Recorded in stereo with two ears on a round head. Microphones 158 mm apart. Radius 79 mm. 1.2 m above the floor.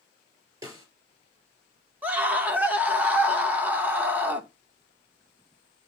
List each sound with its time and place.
0.6 s a snare drum: 15° right (ahead or behind), 4.5 m
2.0 s a scream: 10° right (ahead or behind), 1.7 m